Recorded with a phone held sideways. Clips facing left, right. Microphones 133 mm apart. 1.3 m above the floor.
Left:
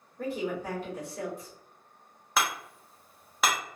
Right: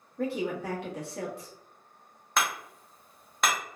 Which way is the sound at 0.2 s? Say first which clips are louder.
Right 2 dB; 75° right (ahead or behind).